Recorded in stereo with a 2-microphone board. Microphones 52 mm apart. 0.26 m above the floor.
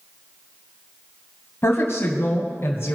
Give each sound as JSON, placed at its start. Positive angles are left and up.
{"t": 1.6, "sound": "a woman speaking", "side_deg": 45, "distance_m": 1.3}